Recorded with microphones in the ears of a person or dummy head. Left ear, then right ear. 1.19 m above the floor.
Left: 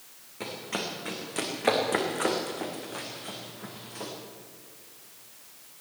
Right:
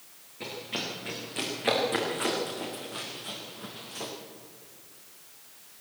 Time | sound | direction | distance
0.4 | running footsteps | 40° left (ahead or behind) | 5 m